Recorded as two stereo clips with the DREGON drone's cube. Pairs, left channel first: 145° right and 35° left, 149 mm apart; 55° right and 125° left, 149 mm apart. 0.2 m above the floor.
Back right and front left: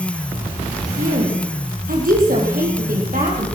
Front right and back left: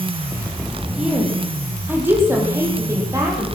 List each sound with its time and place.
1.0 s a woman speaking: 40° left, 7 m; by 3.5 s 55° left, 8.5 m